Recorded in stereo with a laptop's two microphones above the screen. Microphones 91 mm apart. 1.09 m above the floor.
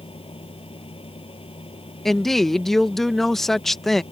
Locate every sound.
0.0 s a fan: 85° left
2.0 s a woman speaking: 5° left (ahead or behind)